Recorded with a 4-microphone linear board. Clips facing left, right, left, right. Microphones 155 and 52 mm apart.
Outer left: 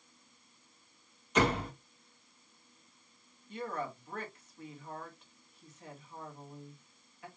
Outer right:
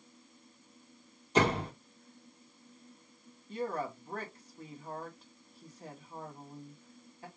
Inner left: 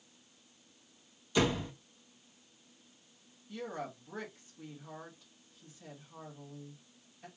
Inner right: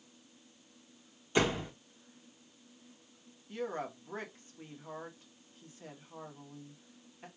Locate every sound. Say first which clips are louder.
1.4 s a door slam: outer right 1 dB, even; 30° right (ahead or behind), 1.4 m
3.5 s a woman speaking: outer right 3 dB, inner right 3 dB; 35° right (ahead or behind), 1.3 m